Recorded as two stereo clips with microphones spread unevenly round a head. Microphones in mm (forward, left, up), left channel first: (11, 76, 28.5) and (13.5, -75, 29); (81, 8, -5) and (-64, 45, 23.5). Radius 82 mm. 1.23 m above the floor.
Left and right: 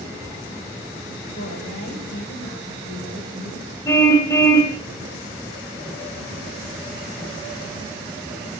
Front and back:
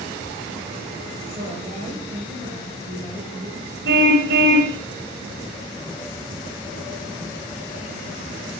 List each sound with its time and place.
1.4 s a woman speaking: 115° left, 7.5 m
3.9 s a car horn: 165° left, 3 m